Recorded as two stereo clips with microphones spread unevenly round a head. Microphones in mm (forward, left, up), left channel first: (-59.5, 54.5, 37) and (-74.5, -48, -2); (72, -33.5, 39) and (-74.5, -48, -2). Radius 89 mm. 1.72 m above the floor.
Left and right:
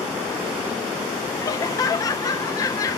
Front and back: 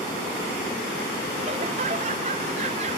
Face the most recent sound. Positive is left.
turn(degrees=125)